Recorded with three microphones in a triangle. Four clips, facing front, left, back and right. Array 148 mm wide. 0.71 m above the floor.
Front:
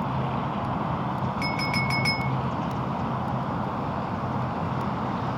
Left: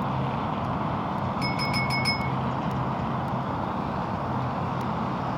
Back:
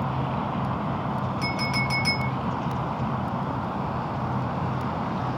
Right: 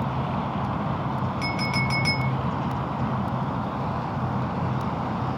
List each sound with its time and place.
1.4 s a clink: 40° right, 0.7 m